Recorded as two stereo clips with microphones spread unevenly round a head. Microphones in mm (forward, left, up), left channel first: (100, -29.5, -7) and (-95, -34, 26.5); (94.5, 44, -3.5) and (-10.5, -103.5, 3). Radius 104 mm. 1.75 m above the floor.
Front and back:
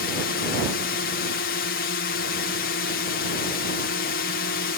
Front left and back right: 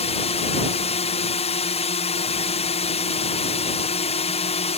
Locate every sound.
0.0 s a drone: 10° left